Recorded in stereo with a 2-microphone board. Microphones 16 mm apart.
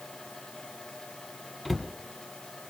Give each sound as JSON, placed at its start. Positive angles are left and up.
{"t": 1.6, "sound": "a cupboard door", "side_deg": 15, "distance_m": 1.8}